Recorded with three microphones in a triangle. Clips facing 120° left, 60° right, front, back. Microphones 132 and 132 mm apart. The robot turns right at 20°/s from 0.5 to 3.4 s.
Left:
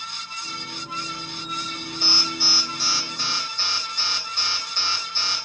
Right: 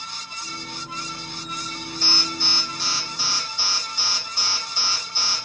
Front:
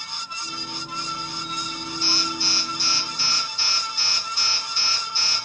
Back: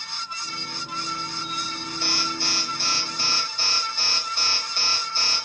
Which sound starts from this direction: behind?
An alarm, at 2.0 s.